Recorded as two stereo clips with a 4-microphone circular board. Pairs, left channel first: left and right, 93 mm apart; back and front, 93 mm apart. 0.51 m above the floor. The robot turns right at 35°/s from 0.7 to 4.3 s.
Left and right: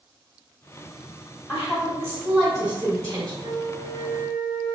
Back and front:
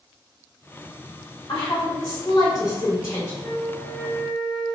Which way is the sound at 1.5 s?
165° left.